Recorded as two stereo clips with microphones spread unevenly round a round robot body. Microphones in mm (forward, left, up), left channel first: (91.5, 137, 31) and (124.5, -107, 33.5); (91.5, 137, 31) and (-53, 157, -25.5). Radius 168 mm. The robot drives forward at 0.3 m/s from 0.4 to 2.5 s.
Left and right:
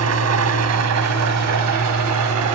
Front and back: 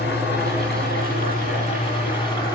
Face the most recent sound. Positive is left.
turn(degrees=-90)